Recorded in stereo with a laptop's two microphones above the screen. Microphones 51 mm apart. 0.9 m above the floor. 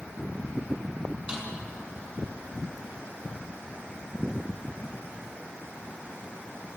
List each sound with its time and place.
1.3 s a snare drum: 20° right (ahead or behind), 7.5 m